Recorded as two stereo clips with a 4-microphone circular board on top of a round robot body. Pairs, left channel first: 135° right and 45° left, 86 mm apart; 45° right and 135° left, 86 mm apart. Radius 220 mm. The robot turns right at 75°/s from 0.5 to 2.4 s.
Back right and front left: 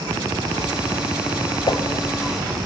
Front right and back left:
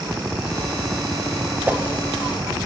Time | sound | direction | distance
1.7 | a whoosh | 160° right | 1.3 m